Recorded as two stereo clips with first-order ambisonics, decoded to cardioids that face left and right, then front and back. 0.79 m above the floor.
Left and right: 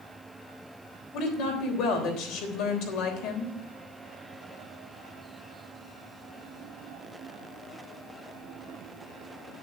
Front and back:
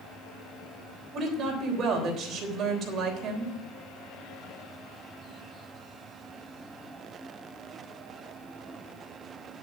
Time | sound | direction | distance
1.1 | a woman speaking | 125° left | 3.5 m